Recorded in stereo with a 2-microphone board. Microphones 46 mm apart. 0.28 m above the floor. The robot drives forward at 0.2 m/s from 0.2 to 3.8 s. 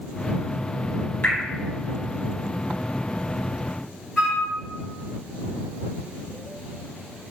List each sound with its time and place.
1.2 s dripping: 40° left (ahead or behind), 2 m
4.2 s a flute: 10° right (ahead or behind), 1.8 m